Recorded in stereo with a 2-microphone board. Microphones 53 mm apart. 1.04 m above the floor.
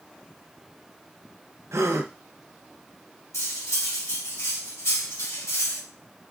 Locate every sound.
1.7 s a gasp: 70° right (ahead or behind), 0.6 m
3.3 s cutlery clinking: 80° left, 1.5 m